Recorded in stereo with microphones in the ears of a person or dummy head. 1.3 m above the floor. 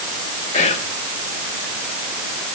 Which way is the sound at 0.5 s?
35° left (ahead or behind).